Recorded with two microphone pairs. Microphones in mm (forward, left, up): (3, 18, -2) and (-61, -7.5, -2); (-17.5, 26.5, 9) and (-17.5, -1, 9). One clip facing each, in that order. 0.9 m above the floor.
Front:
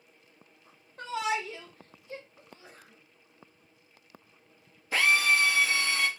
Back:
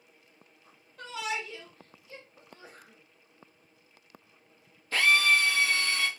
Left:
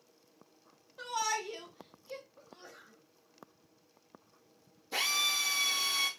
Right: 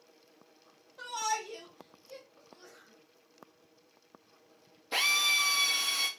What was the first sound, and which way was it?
A shout, 5° left.